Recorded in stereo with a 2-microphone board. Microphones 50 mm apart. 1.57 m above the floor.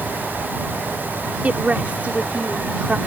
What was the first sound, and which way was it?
A woman speaking, 30° right (ahead or behind).